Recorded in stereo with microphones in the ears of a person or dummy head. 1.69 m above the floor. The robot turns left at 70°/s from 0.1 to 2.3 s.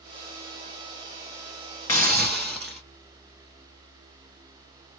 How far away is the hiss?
About 0.5 m.